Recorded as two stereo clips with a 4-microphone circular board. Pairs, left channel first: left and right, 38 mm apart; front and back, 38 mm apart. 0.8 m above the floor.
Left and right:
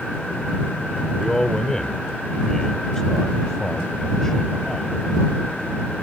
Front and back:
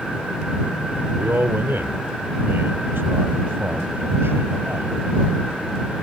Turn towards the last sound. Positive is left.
turn(degrees=165)